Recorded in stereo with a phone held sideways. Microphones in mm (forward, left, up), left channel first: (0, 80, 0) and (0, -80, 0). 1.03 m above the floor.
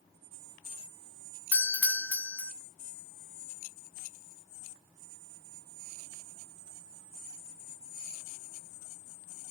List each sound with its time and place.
1.5 s a doorbell: 10° left (ahead or behind), 0.6 m